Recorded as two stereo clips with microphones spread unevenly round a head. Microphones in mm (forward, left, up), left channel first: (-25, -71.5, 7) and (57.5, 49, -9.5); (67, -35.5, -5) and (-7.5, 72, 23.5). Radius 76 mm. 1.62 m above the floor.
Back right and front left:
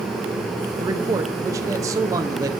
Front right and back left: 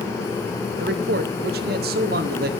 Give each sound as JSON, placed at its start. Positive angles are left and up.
{"t": 0.8, "sound": "a man speaking", "azimuth_deg": 125, "distance_m": 1.2}